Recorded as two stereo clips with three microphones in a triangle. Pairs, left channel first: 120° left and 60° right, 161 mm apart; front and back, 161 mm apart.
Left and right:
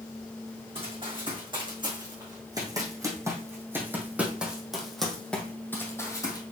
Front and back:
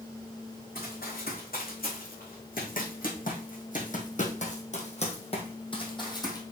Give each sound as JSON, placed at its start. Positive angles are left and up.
{"t": 0.8, "sound": "running footsteps", "azimuth_deg": -5, "distance_m": 3.5}